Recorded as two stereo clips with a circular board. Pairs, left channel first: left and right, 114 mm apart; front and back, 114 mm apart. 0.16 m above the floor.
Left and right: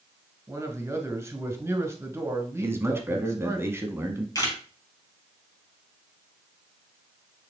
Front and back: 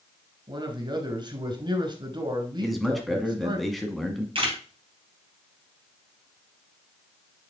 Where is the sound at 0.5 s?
150° right, 1.5 m.